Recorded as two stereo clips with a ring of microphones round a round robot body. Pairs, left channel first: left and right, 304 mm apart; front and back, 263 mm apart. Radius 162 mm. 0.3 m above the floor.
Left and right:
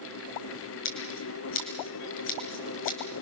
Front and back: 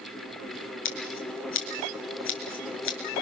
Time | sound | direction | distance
0.8 | scissors | 40° left | 5 m